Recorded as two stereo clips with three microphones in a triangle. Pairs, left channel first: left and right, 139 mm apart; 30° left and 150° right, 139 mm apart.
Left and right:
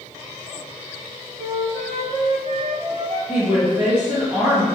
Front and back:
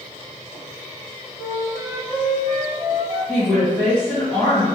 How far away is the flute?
About 0.7 m.